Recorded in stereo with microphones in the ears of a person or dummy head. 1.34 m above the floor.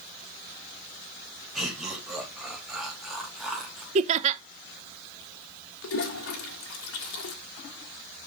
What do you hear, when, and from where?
1.6 s laughter: 5° right (ahead or behind), 3 m
4.0 s laughter: 35° right (ahead or behind), 0.7 m
5.8 s a toilet flushing: 75° left (ahead or behind), 2.5 m